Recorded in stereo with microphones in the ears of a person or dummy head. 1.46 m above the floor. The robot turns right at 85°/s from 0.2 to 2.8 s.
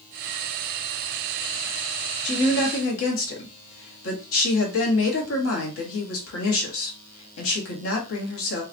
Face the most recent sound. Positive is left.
turn(degrees=75)